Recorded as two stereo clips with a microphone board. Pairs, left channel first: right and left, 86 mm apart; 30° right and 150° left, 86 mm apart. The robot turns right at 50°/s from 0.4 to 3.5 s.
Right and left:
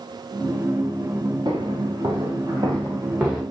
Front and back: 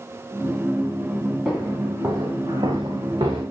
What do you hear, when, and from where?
1.4 s footsteps: 65° left, 7.5 m; by 3.4 s 175° left, 5.5 m